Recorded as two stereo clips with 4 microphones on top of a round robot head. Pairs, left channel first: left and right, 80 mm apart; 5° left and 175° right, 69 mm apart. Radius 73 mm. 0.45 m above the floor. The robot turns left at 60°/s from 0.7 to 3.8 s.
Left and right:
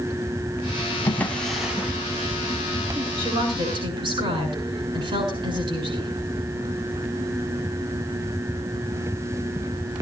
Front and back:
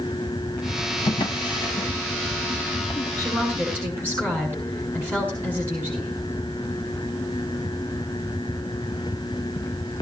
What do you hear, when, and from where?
1.1 s a drawer: 30° left, 1.9 m; by 1.9 s 20° right, 1.9 m
3.2 s a woman speaking: 70° right, 7 m; by 6.1 s 110° right, 7 m